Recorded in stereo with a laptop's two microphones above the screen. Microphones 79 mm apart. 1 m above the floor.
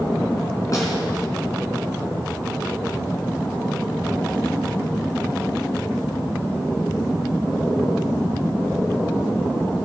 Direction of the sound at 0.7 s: 45° left (ahead or behind).